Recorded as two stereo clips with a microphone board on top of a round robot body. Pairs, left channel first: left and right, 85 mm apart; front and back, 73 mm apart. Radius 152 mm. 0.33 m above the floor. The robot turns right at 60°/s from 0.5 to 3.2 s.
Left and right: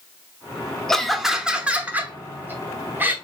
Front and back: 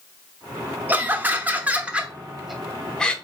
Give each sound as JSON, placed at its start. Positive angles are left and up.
{"t": 0.9, "sound": "laughter", "azimuth_deg": 170, "distance_m": 0.9}